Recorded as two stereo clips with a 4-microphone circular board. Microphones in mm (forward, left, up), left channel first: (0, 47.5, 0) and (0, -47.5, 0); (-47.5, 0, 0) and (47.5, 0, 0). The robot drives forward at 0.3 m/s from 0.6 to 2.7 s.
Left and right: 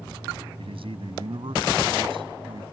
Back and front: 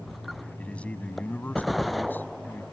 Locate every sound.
0.6 s a man speaking: 100° right; by 2.6 s 110° right